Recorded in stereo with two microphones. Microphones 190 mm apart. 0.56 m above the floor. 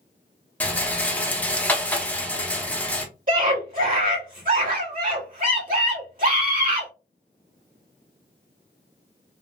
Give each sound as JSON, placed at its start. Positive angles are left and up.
{"t": 0.6, "sound": "a rattle", "side_deg": 10, "distance_m": 0.8}
{"t": 3.3, "sound": "a scream", "side_deg": -45, "distance_m": 2.5}